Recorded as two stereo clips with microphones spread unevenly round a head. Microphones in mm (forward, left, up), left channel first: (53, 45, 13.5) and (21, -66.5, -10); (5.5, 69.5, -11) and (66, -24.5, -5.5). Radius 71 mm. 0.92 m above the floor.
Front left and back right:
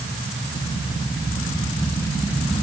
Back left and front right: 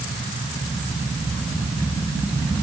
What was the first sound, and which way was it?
Only background noise.